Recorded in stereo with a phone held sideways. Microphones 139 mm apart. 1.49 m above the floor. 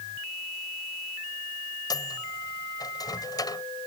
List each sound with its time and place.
1.9 s a microwave: 30° left (ahead or behind)